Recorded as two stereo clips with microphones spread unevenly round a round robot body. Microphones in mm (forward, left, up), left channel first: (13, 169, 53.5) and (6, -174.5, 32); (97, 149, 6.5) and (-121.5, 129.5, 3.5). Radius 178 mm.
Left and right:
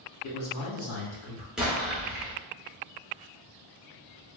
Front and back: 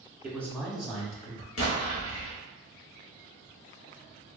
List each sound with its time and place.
0.2 s a man speaking: 100° left, 1.2 m; by 1.5 s 50° left, 1.8 m
1.6 s an explosion: 5° right, 0.8 m